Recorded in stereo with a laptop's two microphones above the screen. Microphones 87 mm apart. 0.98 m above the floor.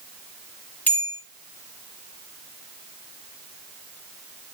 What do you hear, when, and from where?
0.9 s a bell: 20° left (ahead or behind), 4 m